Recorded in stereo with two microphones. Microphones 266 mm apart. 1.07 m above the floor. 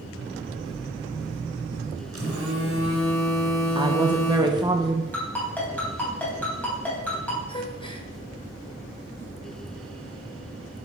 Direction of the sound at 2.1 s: 55° right (ahead or behind).